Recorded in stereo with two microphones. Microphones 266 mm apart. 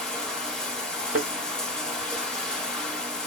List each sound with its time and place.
0.0 s running water: 5° left (ahead or behind), 0.7 m
1.1 s a thud: 60° right (ahead or behind), 0.7 m